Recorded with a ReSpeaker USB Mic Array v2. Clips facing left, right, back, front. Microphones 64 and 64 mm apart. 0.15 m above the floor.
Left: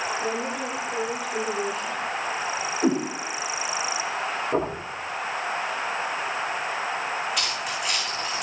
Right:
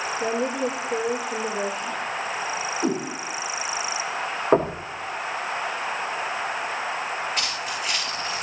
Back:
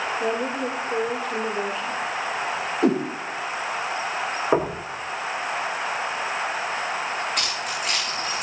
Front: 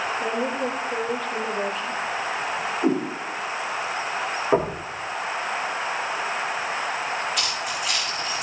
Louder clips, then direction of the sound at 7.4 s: Even, even; 140° right.